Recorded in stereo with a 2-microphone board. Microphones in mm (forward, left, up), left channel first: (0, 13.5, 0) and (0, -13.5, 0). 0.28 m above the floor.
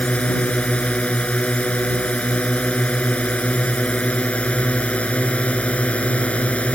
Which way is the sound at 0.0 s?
55° left (ahead or behind).